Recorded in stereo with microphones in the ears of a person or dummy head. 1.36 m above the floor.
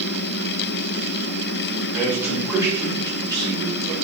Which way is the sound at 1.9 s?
10° right (ahead or behind).